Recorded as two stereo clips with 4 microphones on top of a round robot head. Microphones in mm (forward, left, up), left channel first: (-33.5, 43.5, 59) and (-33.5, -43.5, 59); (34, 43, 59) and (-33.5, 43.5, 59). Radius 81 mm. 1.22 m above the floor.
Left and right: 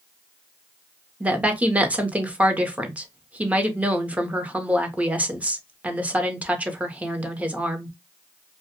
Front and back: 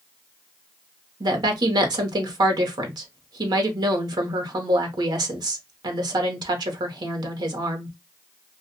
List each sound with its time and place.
1.2 s a woman speaking: 165° right, 0.8 m